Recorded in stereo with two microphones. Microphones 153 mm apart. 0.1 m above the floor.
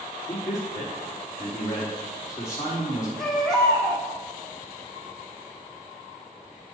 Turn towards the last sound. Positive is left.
turn(degrees=5)  # may be behind; listen again after turning